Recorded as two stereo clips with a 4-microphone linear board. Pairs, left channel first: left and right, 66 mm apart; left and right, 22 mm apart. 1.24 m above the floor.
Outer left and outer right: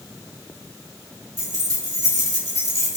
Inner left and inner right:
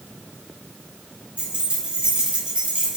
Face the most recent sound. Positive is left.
turn(degrees=-80)